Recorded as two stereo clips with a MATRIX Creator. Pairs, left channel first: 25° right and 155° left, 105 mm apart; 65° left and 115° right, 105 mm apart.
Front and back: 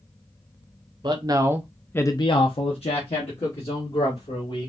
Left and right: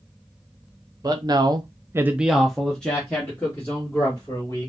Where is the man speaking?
160° right, 0.9 m; by 4.7 s 5° right, 2.5 m.